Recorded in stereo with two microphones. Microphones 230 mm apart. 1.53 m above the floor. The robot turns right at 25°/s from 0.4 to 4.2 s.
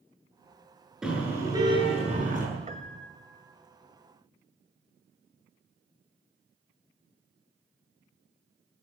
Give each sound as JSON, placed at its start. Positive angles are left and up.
{"t": 1.0, "sound": "a car horn", "azimuth_deg": 180, "distance_m": 10.0}
{"t": 2.7, "sound": "a piano", "side_deg": -30, "distance_m": 1.4}